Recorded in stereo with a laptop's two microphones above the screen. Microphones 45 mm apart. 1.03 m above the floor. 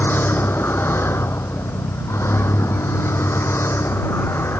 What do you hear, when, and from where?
0.0 s a vehicle: 55° left (ahead or behind); by 4.6 s 65° left (ahead or behind)